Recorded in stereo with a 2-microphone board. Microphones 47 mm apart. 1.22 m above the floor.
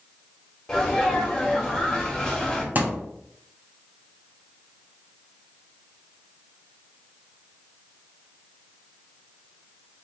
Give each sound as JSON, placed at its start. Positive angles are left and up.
{"t": 0.7, "sound": "a sneeze", "side_deg": 10, "distance_m": 1.9}
{"t": 2.8, "sound": "a thud", "side_deg": -40, "distance_m": 0.8}